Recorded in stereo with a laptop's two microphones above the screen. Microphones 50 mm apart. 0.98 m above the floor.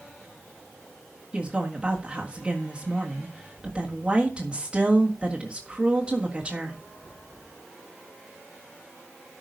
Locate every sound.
1.3 s a woman speaking: 20° right (ahead or behind), 1.7 m